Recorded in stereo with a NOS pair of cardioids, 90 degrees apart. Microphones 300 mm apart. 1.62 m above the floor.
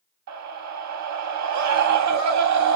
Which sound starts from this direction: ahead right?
A scream, at 0.3 s.